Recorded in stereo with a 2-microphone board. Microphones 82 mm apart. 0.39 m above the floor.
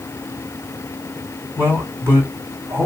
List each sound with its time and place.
1.6 s a man speaking: 30° right (ahead or behind), 2.5 m